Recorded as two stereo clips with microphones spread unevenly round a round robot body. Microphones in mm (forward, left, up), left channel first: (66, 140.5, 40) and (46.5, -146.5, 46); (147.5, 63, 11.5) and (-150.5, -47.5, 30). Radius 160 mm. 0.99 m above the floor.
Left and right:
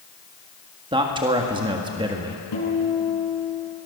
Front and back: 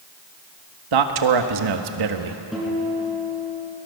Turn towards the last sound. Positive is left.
turn(degrees=110)